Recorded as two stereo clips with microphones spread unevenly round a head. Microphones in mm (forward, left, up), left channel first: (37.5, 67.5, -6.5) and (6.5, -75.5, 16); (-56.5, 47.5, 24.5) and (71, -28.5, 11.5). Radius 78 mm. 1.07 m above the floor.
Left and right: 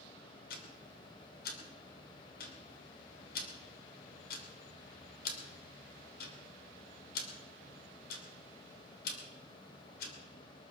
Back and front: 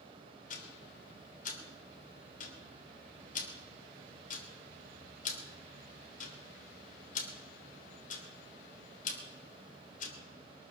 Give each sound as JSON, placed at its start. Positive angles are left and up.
{"t": 0.5, "sound": "ticking", "azimuth_deg": 110, "distance_m": 3.0}